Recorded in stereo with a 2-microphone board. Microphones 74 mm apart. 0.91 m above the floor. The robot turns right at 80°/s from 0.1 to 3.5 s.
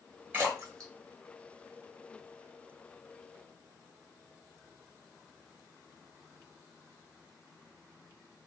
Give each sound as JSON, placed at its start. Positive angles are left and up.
{"t": 0.3, "sound": "a splash", "side_deg": -30, "distance_m": 1.4}